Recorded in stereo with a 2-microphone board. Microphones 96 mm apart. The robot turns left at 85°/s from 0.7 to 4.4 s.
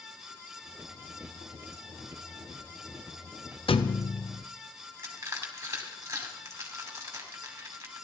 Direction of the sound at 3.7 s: 90° left.